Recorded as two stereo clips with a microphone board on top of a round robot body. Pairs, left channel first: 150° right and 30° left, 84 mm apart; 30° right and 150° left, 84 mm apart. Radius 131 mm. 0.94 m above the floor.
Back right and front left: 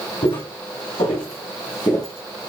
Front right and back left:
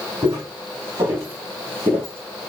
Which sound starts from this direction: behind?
Footsteps, at 0.2 s.